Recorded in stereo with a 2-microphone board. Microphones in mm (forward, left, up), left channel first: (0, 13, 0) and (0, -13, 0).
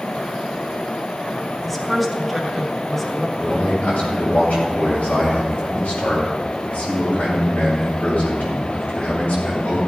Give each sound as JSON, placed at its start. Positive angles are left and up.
{"t": 1.6, "sound": "a woman speaking", "side_deg": 10, "distance_m": 2.0}
{"t": 3.4, "sound": "a man speaking", "side_deg": 80, "distance_m": 6.0}